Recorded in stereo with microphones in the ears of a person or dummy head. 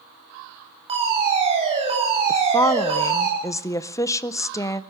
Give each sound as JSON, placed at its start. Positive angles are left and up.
{"t": 0.9, "sound": "a fire alarm", "side_deg": -30, "distance_m": 9.5}
{"t": 2.3, "sound": "a woman speaking", "side_deg": 15, "distance_m": 0.5}